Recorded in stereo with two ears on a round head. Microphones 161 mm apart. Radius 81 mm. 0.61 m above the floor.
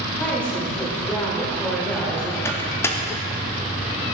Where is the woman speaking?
5° left (ahead or behind), 1.9 m.